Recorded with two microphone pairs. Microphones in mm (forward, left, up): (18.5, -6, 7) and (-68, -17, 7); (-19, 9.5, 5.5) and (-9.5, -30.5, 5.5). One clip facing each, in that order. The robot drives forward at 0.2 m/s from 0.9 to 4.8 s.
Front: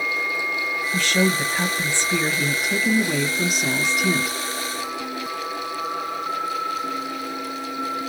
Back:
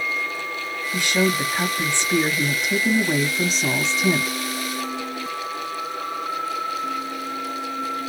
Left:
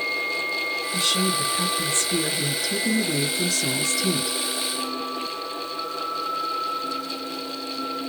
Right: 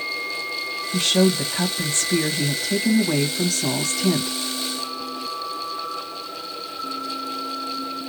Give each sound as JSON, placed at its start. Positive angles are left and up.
{"t": 0.9, "sound": "a woman speaking", "azimuth_deg": -95, "distance_m": 2.0}